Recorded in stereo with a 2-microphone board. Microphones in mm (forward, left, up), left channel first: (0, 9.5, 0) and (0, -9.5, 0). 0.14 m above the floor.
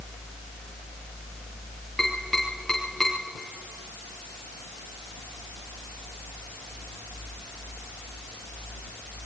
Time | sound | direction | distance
2.0 | tapping | 20° left (ahead or behind) | 6 m